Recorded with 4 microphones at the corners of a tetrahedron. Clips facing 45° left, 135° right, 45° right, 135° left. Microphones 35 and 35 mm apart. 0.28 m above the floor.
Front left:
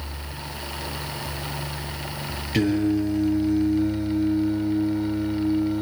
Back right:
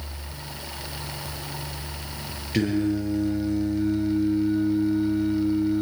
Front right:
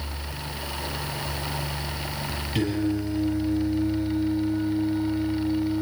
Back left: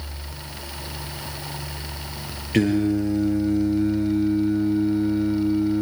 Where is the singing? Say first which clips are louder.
Front left 2 dB, back left 6 dB; 130° left, 6 m.